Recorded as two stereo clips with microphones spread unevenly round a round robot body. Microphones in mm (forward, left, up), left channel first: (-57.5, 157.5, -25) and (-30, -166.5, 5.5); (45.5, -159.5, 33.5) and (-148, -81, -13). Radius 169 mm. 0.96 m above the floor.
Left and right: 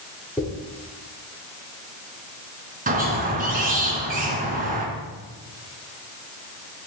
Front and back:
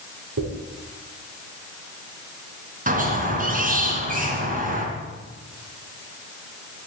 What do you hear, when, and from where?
0.4 s a dropped coin: 175° left, 6.5 m
2.9 s a squeak: 150° right, 4 m